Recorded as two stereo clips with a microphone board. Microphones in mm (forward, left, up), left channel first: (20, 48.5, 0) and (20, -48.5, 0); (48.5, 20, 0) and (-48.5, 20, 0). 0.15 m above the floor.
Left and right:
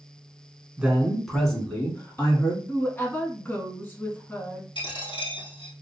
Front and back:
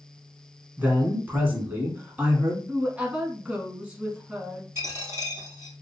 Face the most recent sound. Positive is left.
turn(degrees=120)